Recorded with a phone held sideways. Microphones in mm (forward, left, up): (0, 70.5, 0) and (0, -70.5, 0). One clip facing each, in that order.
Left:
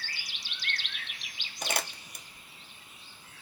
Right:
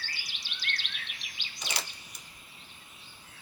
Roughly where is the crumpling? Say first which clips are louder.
Left 5 dB; left.